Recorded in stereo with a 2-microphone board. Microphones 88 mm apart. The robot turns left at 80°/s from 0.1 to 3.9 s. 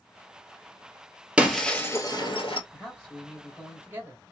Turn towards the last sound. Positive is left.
turn(degrees=-55)